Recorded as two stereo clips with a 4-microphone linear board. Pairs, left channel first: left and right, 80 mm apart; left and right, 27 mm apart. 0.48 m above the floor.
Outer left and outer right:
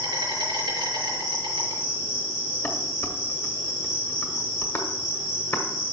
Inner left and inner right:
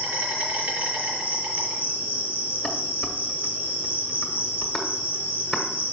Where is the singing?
No singing in this recording.